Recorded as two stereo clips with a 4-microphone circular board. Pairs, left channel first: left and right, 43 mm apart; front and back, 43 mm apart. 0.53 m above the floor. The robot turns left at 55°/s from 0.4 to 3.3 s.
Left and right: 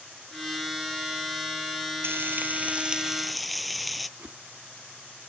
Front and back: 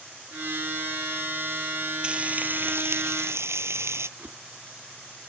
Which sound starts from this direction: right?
Frying, at 2.0 s.